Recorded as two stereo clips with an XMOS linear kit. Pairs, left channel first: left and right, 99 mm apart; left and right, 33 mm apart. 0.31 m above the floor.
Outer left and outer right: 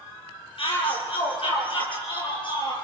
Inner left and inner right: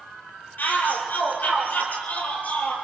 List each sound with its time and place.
0.6 s a shout: 65° left (ahead or behind), 8 m; by 2.8 s 55° left (ahead or behind), 8 m